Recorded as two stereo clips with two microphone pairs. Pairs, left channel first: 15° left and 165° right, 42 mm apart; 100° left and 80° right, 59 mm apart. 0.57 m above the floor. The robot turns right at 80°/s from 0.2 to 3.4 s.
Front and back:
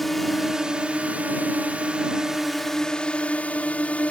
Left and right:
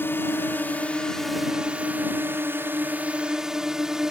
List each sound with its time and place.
0.0 s a drone: 100° left; by 4.1 s 5° right